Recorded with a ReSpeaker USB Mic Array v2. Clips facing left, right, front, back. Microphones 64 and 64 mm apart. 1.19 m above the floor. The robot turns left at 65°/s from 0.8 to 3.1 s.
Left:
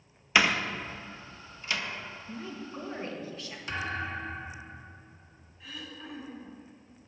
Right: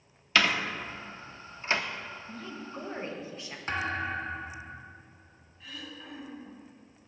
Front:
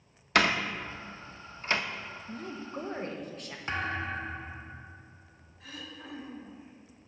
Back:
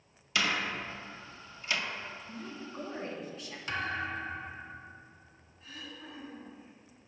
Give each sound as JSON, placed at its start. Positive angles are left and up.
{"t": 0.3, "sound": "a door slam", "azimuth_deg": 20, "distance_m": 0.5}
{"t": 2.3, "sound": "a woman speaking", "azimuth_deg": 30, "distance_m": 1.1}
{"t": 3.7, "sound": "a thud", "azimuth_deg": -50, "distance_m": 0.8}
{"t": 5.6, "sound": "throat clearing", "azimuth_deg": 0, "distance_m": 1.1}